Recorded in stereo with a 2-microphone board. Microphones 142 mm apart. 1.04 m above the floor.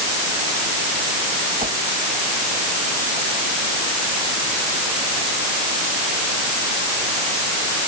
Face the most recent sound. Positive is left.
turn(degrees=-60)  # may be behind; listen again after turning